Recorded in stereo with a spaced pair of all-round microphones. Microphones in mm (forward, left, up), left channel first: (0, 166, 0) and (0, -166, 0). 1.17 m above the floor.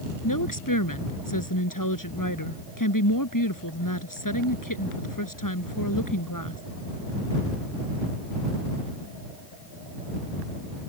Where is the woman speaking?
70° left (ahead or behind).